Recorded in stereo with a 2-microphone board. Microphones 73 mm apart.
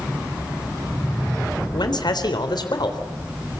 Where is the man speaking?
65° left (ahead or behind), 3.5 m.